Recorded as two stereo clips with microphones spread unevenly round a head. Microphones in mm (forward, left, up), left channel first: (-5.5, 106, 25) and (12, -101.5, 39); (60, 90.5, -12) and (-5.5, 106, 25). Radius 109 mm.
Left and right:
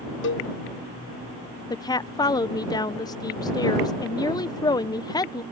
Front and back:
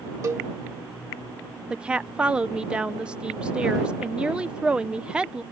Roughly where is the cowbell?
Behind left.